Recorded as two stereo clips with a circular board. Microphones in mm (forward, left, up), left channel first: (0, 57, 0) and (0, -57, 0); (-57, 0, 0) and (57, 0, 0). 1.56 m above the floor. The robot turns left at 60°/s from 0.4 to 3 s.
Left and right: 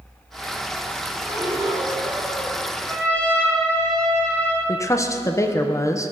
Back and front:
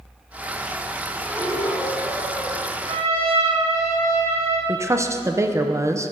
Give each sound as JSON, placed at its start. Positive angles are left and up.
{"t": 1.2, "sound": "breathing", "azimuth_deg": -95, "distance_m": 3.0}
{"t": 2.9, "sound": "a trumpet", "azimuth_deg": 20, "distance_m": 3.0}
{"t": 4.7, "sound": "a woman speaking", "azimuth_deg": 50, "distance_m": 0.6}